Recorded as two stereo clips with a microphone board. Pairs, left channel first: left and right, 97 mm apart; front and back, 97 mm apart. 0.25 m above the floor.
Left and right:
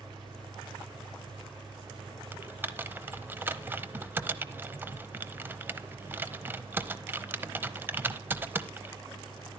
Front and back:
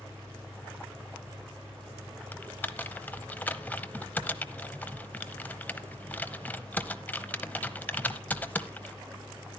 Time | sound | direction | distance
0.0 | an engine running | 115° right | 9.5 m
2.3 | typing on a keyboard | 50° right | 0.7 m